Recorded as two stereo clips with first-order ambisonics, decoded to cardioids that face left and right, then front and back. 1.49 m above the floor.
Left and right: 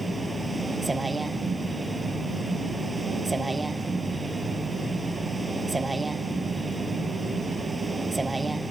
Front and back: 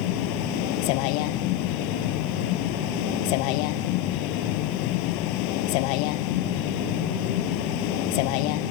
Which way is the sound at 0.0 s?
10° right.